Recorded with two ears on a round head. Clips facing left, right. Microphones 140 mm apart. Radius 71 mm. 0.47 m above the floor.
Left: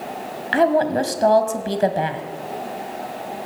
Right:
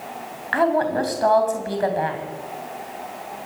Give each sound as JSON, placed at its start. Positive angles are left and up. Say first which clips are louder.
{"t": 0.5, "sound": "a woman speaking", "louder": "left 3 dB", "side_deg": 30, "distance_m": 2.5}